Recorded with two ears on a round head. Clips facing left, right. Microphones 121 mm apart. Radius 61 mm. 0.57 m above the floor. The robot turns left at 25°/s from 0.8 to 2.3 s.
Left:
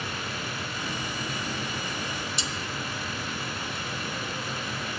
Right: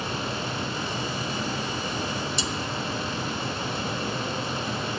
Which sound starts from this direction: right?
Cutlery clinking, at 2.4 s.